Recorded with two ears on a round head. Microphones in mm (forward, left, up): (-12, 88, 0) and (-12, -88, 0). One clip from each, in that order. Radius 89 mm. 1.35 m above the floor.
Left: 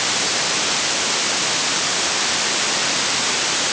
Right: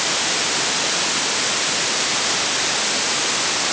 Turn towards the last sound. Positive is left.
No sound to turn to.